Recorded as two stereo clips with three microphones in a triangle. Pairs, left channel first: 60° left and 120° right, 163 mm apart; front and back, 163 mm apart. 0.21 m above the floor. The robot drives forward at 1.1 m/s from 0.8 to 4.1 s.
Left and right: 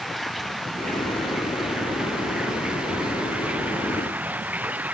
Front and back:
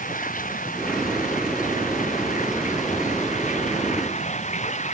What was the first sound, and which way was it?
Running water, 30° right.